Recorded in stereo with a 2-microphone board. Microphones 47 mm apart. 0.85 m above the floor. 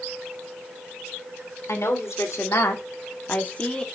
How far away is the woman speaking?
About 2.5 m.